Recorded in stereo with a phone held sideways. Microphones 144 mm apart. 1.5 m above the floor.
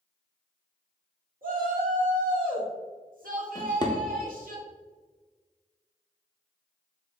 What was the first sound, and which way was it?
A shout, 80° right.